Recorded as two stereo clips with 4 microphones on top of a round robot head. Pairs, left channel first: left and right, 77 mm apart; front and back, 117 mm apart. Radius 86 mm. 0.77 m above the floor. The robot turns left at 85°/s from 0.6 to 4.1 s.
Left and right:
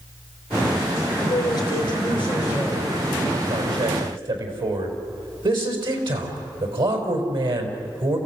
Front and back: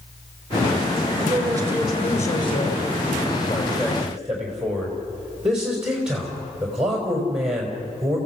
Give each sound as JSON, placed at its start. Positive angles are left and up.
{"t": 1.2, "sound": "a man speaking", "azimuth_deg": 155, "distance_m": 5.0}